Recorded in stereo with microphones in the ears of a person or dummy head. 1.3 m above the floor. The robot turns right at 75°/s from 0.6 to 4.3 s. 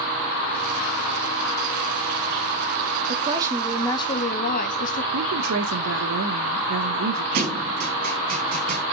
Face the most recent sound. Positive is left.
turn(degrees=-50)  # may be behind; listen again after turning